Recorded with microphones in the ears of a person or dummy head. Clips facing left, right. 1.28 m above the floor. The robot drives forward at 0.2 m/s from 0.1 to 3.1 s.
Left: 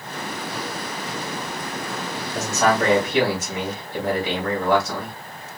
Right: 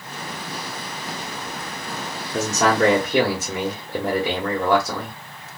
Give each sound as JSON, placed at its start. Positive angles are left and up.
{"t": 2.3, "sound": "a man speaking", "side_deg": -50, "distance_m": 0.9}